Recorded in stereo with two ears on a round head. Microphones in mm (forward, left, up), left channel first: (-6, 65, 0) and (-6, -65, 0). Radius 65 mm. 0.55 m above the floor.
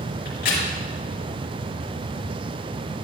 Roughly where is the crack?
Left.